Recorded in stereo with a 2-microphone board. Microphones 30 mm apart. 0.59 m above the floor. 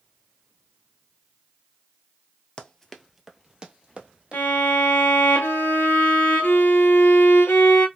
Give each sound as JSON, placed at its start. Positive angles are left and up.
{"t": 2.6, "sound": "running footsteps", "side_deg": 25, "distance_m": 0.6}
{"t": 4.3, "sound": "a violin", "side_deg": 75, "distance_m": 1.0}